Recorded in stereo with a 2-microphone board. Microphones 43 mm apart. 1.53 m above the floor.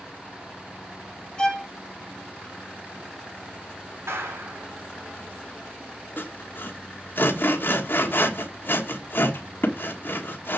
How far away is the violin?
About 2 m.